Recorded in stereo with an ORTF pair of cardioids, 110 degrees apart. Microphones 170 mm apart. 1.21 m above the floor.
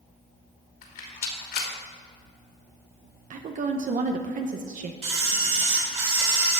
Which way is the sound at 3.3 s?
45° right.